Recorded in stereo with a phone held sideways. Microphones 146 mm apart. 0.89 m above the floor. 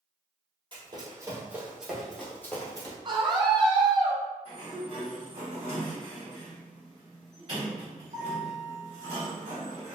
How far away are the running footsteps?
About 1.4 m.